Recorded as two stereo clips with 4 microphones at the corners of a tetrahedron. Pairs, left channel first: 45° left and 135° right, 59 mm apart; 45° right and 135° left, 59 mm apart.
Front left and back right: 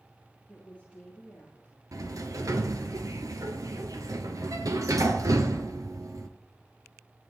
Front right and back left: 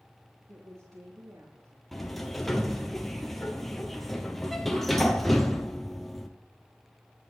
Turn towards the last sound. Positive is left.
turn(degrees=-130)